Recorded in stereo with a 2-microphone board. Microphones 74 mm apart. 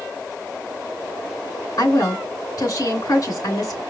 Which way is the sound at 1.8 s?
60° left (ahead or behind).